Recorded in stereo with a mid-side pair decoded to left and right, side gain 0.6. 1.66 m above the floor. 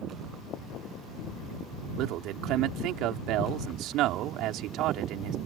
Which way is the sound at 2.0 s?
65° right.